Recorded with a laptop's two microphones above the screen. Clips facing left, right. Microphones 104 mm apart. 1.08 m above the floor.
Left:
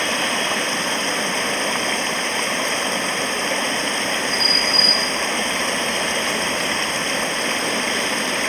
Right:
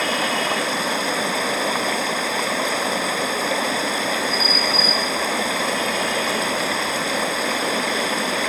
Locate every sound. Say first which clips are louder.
0.0 s running water: right 1 dB; 5° right (ahead or behind)